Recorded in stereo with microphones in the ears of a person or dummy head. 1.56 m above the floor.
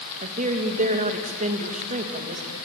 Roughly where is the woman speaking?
Right.